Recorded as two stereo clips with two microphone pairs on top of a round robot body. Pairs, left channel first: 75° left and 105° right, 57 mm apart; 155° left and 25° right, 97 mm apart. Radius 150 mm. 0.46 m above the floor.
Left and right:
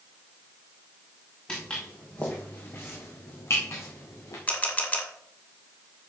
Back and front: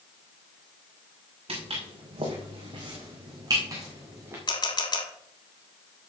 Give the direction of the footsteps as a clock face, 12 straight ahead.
12 o'clock.